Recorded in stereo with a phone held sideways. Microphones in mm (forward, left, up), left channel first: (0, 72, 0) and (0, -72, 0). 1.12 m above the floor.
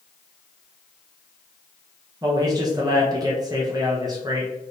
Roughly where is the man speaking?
Right.